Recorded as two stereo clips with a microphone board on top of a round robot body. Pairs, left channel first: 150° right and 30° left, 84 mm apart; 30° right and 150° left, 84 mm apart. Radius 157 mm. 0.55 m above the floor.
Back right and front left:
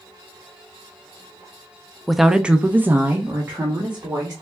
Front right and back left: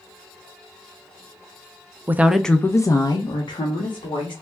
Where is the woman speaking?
120° left, 0.6 m; by 4.3 s 35° right, 1.5 m.